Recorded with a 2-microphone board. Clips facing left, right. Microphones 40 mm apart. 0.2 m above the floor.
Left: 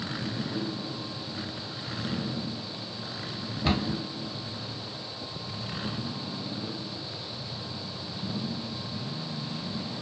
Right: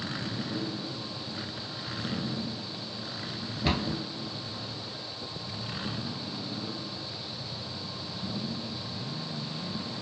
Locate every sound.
3.6 s a cupboard door: centre (ahead or behind), 1.1 m